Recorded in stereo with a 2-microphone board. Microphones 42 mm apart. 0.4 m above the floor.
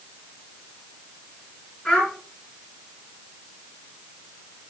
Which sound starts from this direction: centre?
A child speaking, at 1.9 s.